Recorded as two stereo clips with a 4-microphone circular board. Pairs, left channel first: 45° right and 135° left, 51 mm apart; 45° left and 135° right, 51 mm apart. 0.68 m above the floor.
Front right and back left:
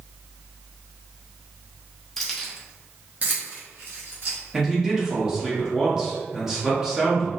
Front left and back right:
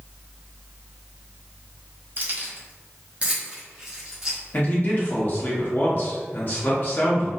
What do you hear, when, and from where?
2.2 s keys jangling: 125° right, 0.7 m; by 4.4 s 145° left, 1.2 m
4.5 s a man speaking: 55° left, 0.9 m